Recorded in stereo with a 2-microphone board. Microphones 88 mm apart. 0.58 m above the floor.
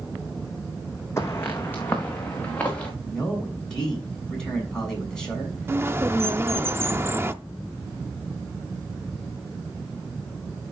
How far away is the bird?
About 0.5 m.